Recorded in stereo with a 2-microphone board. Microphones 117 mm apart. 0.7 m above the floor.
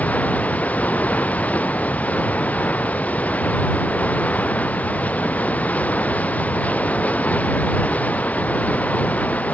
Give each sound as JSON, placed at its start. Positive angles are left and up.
{"t": 0.0, "sound": "running water", "side_deg": 10}